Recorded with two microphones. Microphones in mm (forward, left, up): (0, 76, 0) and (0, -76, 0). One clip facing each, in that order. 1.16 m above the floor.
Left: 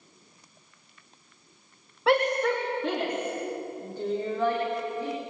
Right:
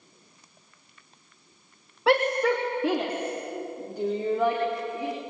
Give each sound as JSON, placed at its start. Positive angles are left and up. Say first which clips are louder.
{"t": 2.1, "sound": "a shout", "louder": "right 1 dB", "side_deg": 0, "distance_m": 2.5}